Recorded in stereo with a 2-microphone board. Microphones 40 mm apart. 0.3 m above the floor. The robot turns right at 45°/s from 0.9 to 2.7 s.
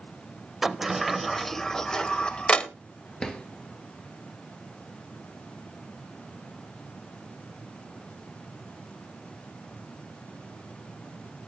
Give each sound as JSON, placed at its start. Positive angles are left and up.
{"t": 0.6, "sound": "a sliding door", "side_deg": -5, "distance_m": 0.7}
{"t": 3.2, "sound": "a drawer", "side_deg": 20, "distance_m": 1.1}